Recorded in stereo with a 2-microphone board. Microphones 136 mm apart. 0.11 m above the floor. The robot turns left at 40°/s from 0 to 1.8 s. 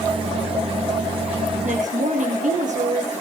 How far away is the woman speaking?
About 3.5 m.